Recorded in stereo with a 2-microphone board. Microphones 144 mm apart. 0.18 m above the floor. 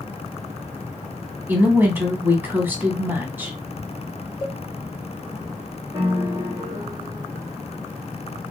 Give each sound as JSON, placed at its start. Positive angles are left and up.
{"t": 1.5, "sound": "a woman speaking", "side_deg": -15, "distance_m": 1.0}
{"t": 4.4, "sound": "a cowbell", "side_deg": 25, "distance_m": 1.2}
{"t": 5.9, "sound": "a piano", "side_deg": -25, "distance_m": 1.3}